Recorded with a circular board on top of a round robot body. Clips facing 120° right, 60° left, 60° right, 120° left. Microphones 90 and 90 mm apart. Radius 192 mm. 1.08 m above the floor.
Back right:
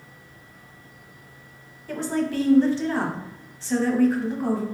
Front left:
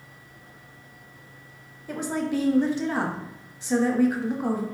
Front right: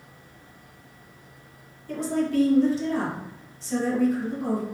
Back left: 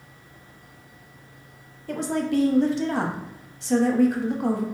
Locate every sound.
1.9 s a woman speaking: 135° left, 1.0 m